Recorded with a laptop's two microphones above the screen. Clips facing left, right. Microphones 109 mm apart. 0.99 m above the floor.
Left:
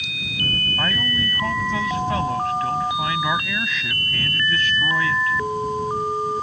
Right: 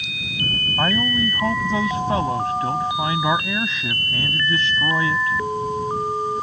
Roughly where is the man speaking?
Right.